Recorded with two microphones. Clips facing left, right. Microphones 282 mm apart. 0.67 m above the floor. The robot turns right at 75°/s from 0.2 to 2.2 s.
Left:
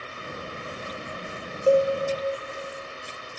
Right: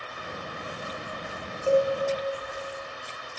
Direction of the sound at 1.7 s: 40° left (ahead or behind).